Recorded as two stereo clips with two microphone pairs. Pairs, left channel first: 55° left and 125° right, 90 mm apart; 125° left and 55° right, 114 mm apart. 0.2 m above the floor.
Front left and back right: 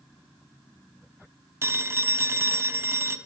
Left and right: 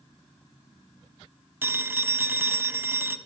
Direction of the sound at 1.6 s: 110° right.